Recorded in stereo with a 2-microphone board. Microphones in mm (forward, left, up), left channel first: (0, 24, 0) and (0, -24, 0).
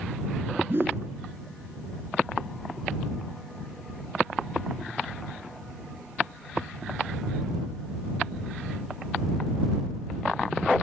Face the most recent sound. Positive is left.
turn(degrees=-55)  # may be behind; listen again after turning